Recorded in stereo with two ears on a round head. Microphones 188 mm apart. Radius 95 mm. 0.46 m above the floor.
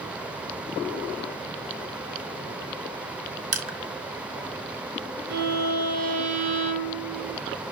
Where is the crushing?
40° right (ahead or behind), 1.8 m.